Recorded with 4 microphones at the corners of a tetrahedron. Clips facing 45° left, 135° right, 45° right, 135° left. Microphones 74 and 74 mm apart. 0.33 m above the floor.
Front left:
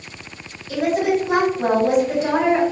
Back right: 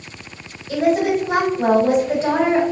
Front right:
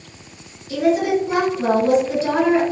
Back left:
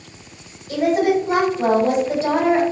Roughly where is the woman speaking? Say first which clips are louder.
Back right 2 dB, even; behind.